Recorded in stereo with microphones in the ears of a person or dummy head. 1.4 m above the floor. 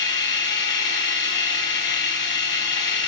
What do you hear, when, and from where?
0.0 s a machine running: 60° left (ahead or behind), 3.5 m